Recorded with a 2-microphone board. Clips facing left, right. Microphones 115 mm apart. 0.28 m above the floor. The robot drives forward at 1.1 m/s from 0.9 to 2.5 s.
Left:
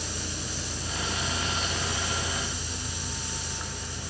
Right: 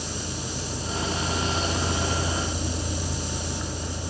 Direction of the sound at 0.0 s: 10° right (ahead or behind).